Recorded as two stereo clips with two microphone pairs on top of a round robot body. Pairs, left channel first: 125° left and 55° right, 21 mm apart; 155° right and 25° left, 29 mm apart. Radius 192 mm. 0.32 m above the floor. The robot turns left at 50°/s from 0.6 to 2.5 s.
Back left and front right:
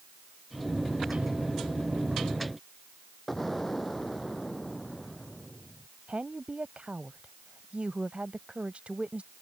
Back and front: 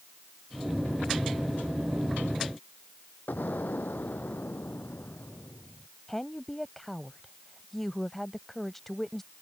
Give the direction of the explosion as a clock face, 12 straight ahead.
5 o'clock.